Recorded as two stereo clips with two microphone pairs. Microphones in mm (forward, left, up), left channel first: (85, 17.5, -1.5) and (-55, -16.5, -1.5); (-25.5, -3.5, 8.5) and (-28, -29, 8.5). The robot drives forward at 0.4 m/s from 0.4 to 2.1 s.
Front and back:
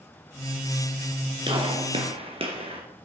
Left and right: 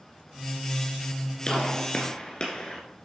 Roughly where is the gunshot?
Behind left.